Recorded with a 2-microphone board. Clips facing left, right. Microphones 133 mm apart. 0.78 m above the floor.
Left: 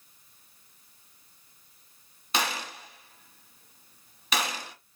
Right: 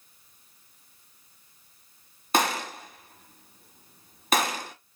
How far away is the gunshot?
About 1.0 m.